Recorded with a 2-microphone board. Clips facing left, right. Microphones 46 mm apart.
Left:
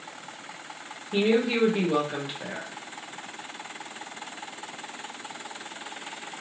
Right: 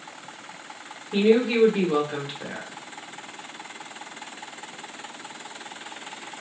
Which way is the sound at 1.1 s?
Centre (ahead or behind).